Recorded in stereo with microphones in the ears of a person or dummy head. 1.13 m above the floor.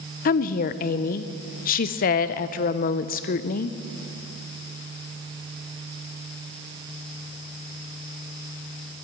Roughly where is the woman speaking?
Left.